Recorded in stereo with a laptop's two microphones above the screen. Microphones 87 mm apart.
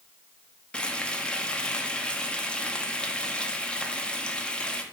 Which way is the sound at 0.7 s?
10° left (ahead or behind).